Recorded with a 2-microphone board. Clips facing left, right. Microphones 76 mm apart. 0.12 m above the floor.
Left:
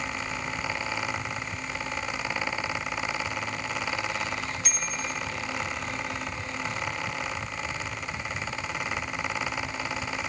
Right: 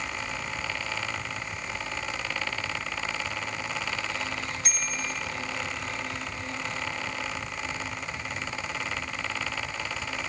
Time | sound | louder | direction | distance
4.6 | a bicycle bell | even | 45° right (ahead or behind) | 3 m